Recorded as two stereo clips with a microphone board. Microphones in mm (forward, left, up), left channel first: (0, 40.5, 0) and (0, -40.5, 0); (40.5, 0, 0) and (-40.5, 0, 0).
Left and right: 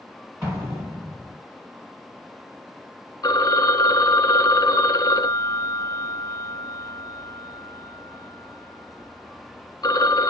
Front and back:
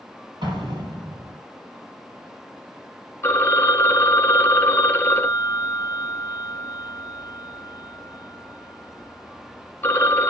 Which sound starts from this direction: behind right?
An explosion, at 0.4 s.